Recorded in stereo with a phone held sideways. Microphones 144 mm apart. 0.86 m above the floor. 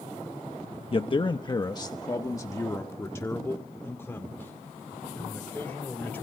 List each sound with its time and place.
0.9 s a man speaking: 40° left (ahead or behind), 0.7 m; by 6.2 s 10° left (ahead or behind), 3.5 m